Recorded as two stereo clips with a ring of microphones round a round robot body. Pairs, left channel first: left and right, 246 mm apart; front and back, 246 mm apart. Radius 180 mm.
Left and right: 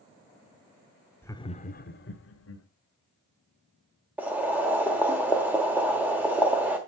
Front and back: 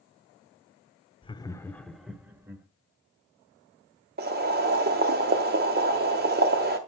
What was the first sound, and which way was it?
Laughter, 25° left.